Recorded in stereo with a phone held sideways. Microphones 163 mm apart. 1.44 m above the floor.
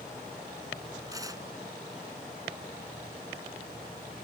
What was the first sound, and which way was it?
Tearing paper, 20° right (ahead or behind).